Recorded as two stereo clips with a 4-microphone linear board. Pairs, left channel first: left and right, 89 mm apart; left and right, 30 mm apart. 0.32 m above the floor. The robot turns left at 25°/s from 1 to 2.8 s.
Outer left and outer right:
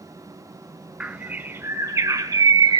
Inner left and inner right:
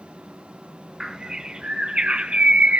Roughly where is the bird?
Ahead.